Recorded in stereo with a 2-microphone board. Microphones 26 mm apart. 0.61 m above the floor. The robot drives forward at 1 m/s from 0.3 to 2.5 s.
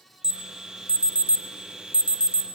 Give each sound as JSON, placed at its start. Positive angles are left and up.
{"t": 0.2, "sound": "an alarm", "side_deg": -40, "distance_m": 1.7}